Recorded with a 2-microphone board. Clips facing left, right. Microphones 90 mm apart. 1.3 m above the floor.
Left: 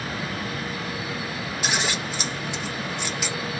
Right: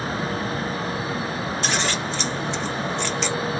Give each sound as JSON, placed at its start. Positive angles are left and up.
{"t": 1.6, "sound": "scissors", "side_deg": 10, "distance_m": 1.0}